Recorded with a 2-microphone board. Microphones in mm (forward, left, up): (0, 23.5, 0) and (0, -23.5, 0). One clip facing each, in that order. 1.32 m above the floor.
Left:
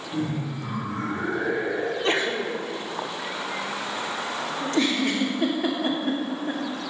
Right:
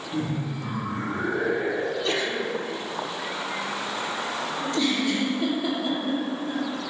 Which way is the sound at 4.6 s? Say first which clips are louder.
Left 2 dB; 60° left (ahead or behind).